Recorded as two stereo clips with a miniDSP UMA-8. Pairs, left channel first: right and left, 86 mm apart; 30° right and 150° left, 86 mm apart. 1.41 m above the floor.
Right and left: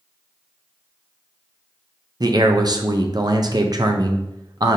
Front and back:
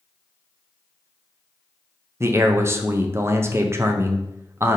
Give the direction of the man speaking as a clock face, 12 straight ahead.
9 o'clock.